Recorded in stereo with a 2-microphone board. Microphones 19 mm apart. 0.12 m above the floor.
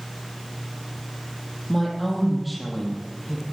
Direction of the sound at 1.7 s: 10° left (ahead or behind).